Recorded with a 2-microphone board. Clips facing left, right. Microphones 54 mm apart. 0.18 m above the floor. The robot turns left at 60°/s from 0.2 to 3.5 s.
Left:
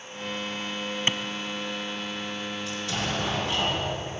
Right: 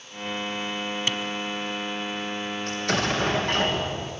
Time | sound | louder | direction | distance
1.1 | a clap | left 2 dB | 25° left (ahead or behind) | 1.4 m
2.7 | an explosion | right 6 dB | 65° right | 3.5 m